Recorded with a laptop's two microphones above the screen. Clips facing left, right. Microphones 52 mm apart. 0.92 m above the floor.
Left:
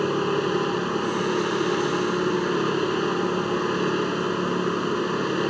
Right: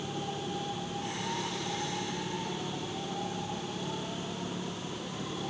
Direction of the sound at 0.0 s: 70° left (ahead or behind).